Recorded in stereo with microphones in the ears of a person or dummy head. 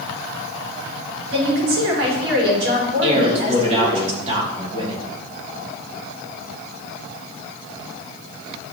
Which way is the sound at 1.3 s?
90° right.